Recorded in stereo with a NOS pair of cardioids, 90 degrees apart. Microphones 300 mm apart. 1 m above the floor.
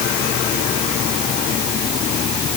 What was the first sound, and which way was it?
Only background noise.